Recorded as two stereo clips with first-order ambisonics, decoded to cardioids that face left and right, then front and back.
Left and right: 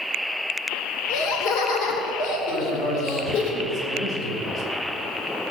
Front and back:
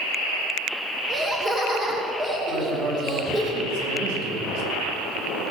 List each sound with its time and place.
1.1 s laughter: 110° left, 2.5 m
2.5 s a man speaking: 170° left, 4.5 m